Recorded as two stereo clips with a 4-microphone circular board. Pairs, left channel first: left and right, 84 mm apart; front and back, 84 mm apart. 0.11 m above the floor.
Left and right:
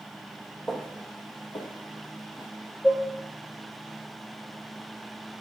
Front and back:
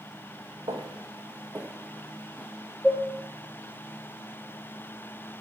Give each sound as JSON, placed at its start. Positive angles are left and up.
{"t": 0.7, "sound": "footsteps", "azimuth_deg": 180, "distance_m": 0.7}
{"t": 2.8, "sound": "dishes clattering", "azimuth_deg": 100, "distance_m": 0.8}